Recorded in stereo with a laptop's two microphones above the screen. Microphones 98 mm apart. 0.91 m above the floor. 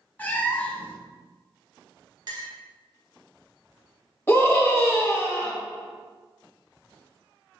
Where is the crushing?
No crushing in this recording.